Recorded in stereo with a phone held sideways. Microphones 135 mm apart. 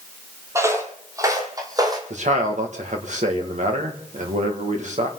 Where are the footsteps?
20° right (ahead or behind), 2.0 m; by 2.0 s 30° right (ahead or behind), 3 m.